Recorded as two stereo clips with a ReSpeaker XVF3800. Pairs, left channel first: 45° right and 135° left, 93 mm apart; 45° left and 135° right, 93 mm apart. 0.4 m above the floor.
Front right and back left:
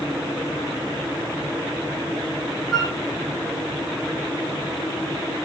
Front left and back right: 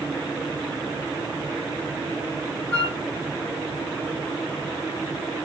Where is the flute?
45° left, 1.2 m.